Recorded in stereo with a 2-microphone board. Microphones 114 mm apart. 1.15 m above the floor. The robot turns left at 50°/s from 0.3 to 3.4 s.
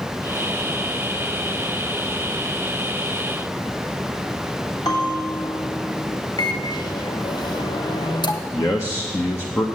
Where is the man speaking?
25° left (ahead or behind), 0.9 m.